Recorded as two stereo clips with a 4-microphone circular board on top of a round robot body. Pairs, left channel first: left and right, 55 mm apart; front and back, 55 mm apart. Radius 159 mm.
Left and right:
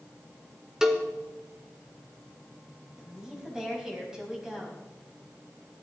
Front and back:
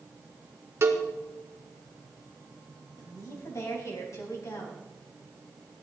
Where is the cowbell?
165° right, 1.8 m.